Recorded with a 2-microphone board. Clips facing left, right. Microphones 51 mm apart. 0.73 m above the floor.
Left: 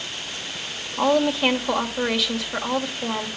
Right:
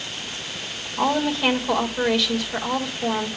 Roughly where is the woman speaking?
Centre.